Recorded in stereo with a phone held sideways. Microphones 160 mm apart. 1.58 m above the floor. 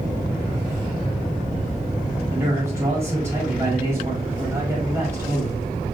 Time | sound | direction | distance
2.3 | a man speaking | 15° right (ahead or behind) | 4.5 m